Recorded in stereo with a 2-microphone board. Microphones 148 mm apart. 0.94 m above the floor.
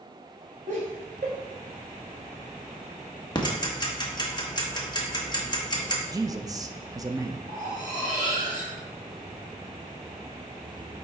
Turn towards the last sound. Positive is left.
turn(degrees=-65)  # may be behind; listen again after turning